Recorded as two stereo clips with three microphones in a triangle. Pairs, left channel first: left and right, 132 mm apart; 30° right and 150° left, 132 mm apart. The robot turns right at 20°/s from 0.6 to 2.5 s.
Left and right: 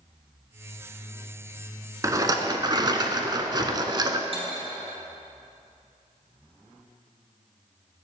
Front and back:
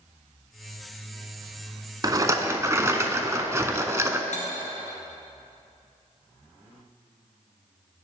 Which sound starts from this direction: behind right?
A rattle, at 2.0 s.